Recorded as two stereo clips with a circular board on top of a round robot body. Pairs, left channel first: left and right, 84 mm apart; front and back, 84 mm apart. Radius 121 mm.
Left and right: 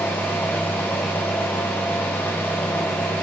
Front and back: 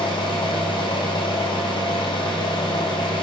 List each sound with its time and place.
0.0 s an engine running: 25° left, 2 m